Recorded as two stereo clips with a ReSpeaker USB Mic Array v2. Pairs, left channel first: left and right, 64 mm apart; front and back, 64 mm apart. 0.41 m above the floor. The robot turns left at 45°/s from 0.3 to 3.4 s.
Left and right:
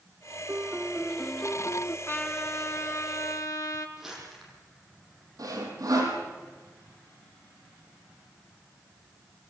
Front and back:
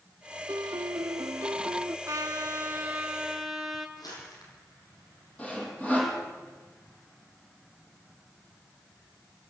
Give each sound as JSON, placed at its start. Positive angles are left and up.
{"t": 0.5, "sound": "a piano", "azimuth_deg": -150, "distance_m": 0.6}
{"t": 2.1, "sound": "a trumpet", "azimuth_deg": 145, "distance_m": 3.5}
{"t": 4.0, "sound": "crumpling", "azimuth_deg": -5, "distance_m": 9.0}
{"t": 5.4, "sound": "sawing", "azimuth_deg": -70, "distance_m": 7.5}